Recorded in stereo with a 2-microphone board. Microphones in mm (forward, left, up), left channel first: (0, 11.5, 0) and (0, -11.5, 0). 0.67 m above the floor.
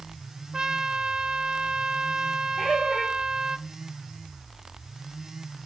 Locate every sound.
0.5 s a trumpet: 35° right (ahead or behind), 0.5 m
2.6 s laughter: 70° left (ahead or behind), 4 m